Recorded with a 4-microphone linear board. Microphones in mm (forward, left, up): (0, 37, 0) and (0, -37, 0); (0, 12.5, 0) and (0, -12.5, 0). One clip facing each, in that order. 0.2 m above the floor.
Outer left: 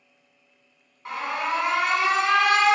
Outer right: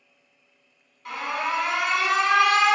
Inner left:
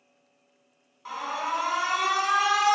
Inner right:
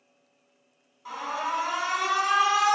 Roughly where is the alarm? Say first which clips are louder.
Even, even; left.